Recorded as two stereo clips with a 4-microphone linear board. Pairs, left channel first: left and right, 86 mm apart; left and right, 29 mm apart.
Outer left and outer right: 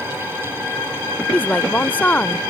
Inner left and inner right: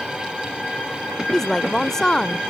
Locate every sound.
1.3 s a woman speaking: 20° left (ahead or behind)